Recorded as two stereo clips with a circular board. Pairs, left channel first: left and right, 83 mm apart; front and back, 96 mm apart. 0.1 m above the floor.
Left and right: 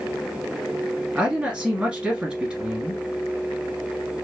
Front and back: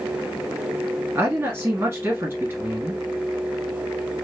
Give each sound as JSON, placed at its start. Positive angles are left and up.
{"t": 1.1, "sound": "a man speaking", "azimuth_deg": -155, "distance_m": 1.8}